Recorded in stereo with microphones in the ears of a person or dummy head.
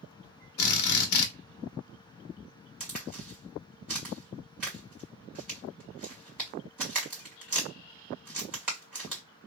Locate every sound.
0.6 s a drill: 70° left (ahead or behind), 0.8 m
2.8 s a crack: 10° right (ahead or behind), 1.6 m